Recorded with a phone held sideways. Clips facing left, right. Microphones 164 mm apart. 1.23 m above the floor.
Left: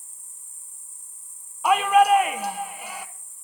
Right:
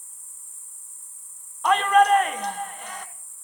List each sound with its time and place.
0.0 s an insect: 15° left (ahead or behind), 5 m
1.6 s a shout: 10° left (ahead or behind), 1.0 m